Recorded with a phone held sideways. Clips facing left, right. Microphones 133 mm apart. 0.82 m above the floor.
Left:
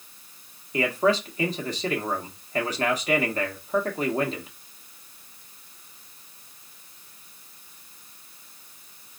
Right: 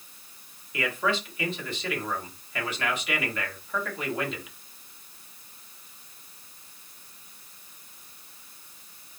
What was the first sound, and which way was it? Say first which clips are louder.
A man speaking: left 6 dB; 40° left (ahead or behind).